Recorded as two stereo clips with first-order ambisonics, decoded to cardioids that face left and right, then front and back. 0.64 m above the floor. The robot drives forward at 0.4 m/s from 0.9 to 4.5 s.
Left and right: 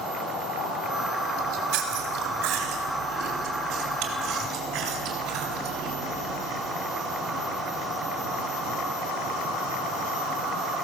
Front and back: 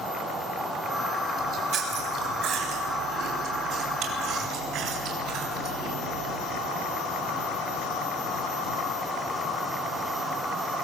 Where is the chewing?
120° right, 4 m; by 6.3 s 135° right, 5 m.